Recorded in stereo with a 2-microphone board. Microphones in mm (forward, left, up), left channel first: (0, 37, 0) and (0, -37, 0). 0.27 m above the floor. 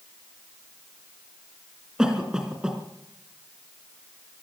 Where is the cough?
10° right (ahead or behind), 3 m.